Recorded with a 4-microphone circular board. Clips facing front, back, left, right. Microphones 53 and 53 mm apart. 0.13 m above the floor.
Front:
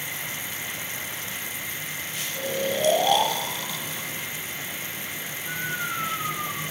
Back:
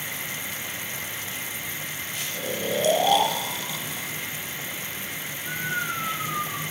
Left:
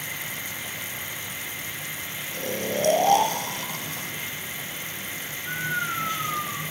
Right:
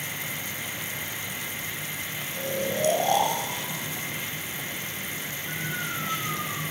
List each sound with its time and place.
2.3 s snoring: 100° left, 0.9 m